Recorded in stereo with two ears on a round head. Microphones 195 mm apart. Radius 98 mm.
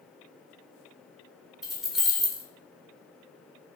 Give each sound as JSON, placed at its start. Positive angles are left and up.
{"t": 1.6, "sound": "keys jangling", "side_deg": 0, "distance_m": 0.7}